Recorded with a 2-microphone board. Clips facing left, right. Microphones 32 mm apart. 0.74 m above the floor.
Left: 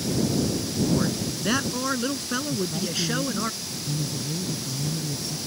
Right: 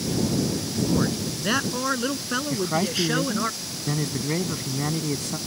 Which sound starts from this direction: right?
A man speaking, at 2.5 s.